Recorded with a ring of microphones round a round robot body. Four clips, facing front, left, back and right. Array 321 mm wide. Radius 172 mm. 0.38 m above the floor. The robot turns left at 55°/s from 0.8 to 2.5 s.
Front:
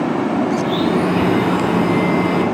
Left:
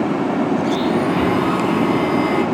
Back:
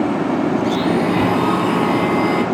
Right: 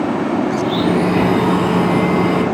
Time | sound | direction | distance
0.6 | a blender | 120° right | 4 m